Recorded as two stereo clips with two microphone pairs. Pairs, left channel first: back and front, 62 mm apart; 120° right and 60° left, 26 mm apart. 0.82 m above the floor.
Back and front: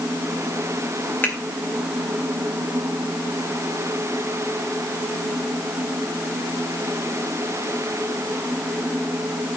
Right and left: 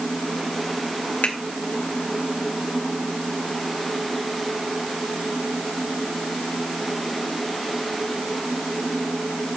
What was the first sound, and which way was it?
A finger snap, 120° right.